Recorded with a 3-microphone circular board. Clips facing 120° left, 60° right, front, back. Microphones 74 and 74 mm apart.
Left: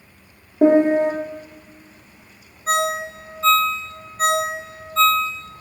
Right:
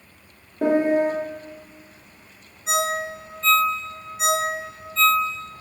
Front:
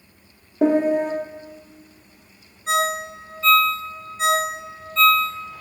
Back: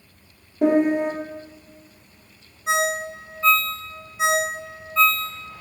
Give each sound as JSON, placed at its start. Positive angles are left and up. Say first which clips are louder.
{"t": 0.6, "sound": "a piano", "louder": "left 5 dB, even", "azimuth_deg": 50, "distance_m": 1.7}
{"t": 2.7, "sound": "a ringtone", "louder": "left 3 dB, front 1 dB", "azimuth_deg": 105, "distance_m": 1.0}